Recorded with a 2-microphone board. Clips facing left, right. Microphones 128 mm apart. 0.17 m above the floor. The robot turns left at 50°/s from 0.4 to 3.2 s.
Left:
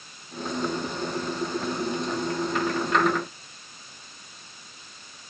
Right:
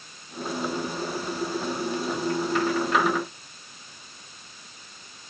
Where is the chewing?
I don't hear chewing.